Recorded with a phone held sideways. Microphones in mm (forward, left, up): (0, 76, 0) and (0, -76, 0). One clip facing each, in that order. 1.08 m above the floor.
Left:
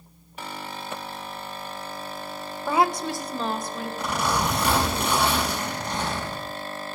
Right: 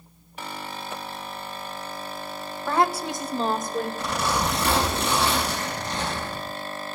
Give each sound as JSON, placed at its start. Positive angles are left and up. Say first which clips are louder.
{"t": 2.7, "sound": "a woman speaking", "louder": "left 1 dB", "side_deg": 15, "distance_m": 0.7}
{"t": 4.0, "sound": "a zipper", "louder": "left 5 dB", "side_deg": 15, "distance_m": 5.0}